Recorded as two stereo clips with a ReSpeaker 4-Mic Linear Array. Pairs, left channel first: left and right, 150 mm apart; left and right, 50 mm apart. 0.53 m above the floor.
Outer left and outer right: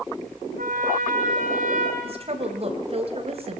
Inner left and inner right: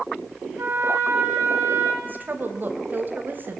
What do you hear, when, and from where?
0.6 s a trumpet: 65° right (ahead or behind), 4 m
2.0 s a woman speaking: 40° right (ahead or behind), 3.5 m